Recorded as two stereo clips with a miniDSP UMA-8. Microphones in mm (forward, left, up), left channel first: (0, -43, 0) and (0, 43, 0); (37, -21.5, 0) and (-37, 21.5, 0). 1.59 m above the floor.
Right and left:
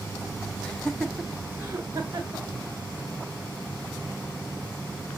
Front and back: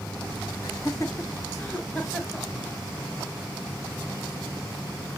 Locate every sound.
0.6 s laughter: 20° right, 0.6 m; by 2.5 s 55° left, 1.0 m